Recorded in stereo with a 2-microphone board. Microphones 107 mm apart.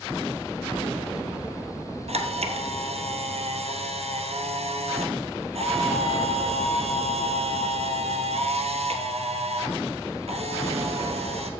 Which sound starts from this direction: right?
A camera shutter, at 2.1 s.